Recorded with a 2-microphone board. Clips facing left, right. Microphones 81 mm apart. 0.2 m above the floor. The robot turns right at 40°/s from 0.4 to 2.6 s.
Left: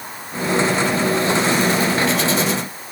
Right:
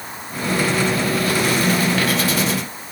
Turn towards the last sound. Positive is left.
No sound to turn to.